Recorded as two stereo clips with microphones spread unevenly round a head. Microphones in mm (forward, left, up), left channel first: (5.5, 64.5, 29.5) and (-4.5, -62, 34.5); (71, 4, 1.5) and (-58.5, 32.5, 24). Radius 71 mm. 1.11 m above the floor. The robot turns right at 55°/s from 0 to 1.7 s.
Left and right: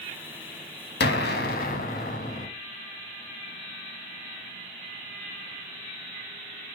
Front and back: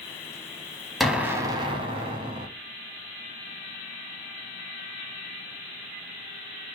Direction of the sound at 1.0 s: 85° left.